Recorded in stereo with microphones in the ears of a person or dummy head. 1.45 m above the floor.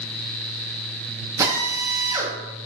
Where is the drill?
20° right (ahead or behind), 2.5 m.